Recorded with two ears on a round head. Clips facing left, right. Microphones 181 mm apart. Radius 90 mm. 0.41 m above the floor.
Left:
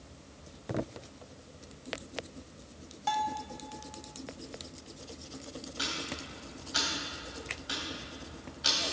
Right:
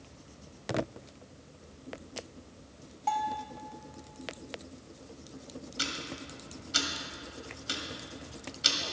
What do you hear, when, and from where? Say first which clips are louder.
3.1 s a bell: right 1 dB; 15° left (ahead or behind), 1.0 m
5.8 s ticking: even; 40° right (ahead or behind), 1.9 m